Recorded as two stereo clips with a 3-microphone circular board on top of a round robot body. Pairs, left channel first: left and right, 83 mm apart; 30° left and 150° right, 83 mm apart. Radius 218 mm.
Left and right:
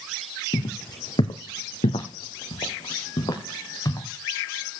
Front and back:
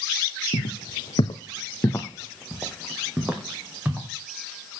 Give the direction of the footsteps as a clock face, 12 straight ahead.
11 o'clock.